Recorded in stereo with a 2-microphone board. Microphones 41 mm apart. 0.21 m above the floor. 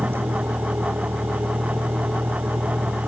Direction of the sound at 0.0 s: 75° right (ahead or behind).